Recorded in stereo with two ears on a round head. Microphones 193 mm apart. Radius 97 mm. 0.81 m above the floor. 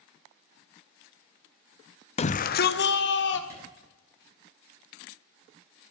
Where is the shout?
30° left (ahead or behind), 0.6 m; by 3.4 s 60° left (ahead or behind), 1.8 m.